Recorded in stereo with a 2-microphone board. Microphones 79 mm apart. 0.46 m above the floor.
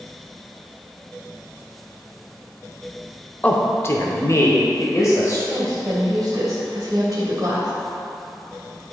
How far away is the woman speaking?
About 2.5 m.